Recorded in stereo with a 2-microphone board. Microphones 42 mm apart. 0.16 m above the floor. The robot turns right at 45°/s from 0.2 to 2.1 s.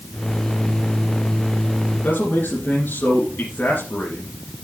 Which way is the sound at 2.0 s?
50° left (ahead or behind).